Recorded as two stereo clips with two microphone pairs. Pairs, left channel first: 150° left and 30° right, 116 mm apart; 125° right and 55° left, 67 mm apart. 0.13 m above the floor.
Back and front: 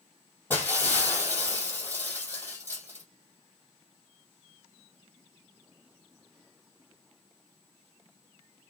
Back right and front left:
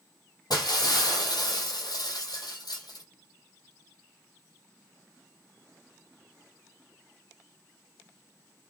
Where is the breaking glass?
135° right, 3 m.